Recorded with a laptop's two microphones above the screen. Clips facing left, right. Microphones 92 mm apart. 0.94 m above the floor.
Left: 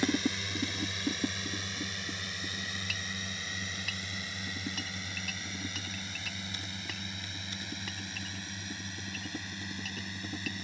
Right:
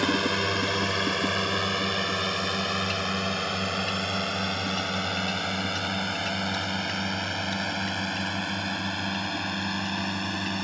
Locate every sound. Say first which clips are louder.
0.0 s a drone: right 6 dB; 70° right (ahead or behind)